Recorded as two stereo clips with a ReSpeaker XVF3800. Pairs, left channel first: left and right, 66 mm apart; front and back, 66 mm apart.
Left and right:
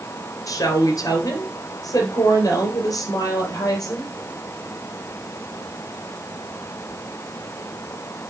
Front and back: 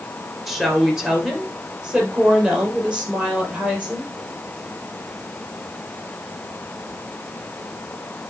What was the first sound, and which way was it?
A woman speaking, 95° left.